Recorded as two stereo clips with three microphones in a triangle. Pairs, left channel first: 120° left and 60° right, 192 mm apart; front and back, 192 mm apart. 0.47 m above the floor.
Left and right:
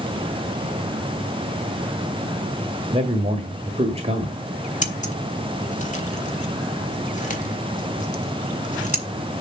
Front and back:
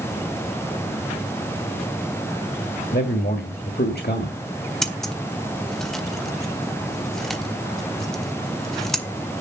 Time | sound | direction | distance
2.9 | a man speaking | 10° right | 1.7 m
4.8 | scissors | 85° left | 1.8 m